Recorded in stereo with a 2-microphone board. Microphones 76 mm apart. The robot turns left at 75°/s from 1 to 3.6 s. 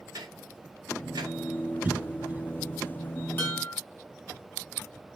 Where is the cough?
20° right (ahead or behind), 1.6 m.